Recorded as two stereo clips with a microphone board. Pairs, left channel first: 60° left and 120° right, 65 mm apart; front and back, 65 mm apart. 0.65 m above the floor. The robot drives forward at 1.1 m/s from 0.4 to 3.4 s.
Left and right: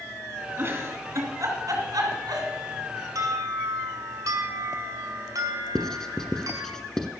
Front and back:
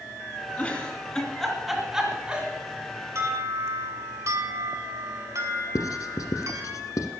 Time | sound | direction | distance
0.6 | a giggle | 65° right | 3 m
3.1 | an alarm | 140° right | 2.5 m
5.8 | writing | 20° right | 1.2 m